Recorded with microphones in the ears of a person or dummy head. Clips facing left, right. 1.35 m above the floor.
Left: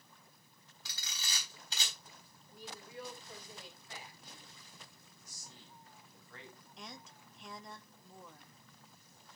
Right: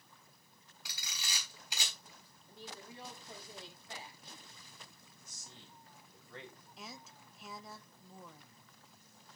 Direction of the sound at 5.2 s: 20° right (ahead or behind).